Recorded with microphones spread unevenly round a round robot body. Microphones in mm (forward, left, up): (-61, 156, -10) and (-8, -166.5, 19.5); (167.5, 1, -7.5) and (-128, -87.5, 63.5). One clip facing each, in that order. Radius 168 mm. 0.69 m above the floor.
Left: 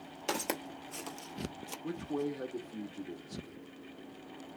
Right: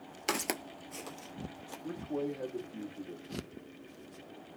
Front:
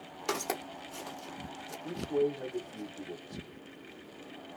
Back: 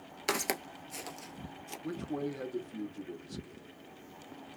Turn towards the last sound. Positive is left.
turn(degrees=150)